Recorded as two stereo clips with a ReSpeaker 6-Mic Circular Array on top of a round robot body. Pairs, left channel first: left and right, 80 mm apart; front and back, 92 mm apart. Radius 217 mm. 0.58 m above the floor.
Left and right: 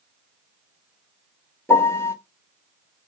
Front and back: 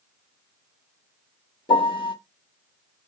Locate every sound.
1.7 s a piano: 30° left, 1.1 m